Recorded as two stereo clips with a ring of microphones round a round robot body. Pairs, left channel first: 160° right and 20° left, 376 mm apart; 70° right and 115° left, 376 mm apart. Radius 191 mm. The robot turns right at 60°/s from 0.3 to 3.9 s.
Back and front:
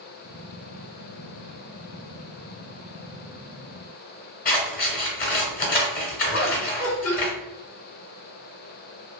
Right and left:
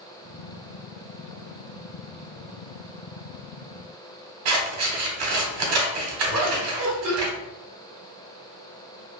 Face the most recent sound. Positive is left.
turn(degrees=150)